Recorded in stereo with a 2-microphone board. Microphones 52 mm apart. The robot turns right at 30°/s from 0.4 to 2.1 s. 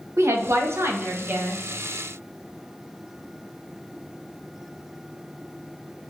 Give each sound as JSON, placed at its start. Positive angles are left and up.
{"t": 0.2, "sound": "a woman speaking", "azimuth_deg": -70, "distance_m": 0.7}